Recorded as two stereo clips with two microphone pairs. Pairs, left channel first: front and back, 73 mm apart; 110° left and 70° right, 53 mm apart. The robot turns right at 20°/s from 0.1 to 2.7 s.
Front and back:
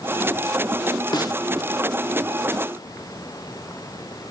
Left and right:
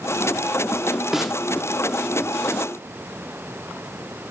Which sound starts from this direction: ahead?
A snare drum, at 1.1 s.